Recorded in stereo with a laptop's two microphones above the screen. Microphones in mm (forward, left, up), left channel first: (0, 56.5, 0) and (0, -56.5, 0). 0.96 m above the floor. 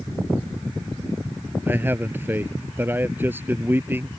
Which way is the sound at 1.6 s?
20° right (ahead or behind).